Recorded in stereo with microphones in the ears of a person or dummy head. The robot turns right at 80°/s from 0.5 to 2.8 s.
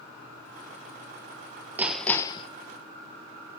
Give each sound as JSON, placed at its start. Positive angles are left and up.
{"t": 1.8, "sound": "hammering", "azimuth_deg": -10, "distance_m": 1.0}